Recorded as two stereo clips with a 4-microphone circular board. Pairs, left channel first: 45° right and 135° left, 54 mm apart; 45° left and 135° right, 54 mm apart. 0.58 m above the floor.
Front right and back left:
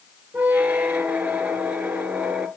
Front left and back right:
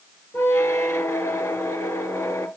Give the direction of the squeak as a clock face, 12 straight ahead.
10 o'clock.